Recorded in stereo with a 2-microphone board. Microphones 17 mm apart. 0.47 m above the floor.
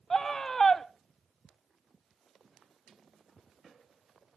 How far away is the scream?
About 0.8 m.